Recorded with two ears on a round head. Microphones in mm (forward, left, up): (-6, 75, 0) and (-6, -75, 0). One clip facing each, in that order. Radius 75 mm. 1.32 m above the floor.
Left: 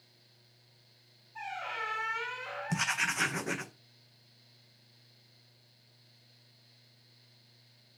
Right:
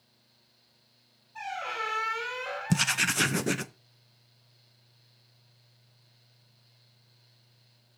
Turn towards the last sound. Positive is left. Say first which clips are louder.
# right 7 dB
turn(degrees=-40)  # may be behind; listen again after turning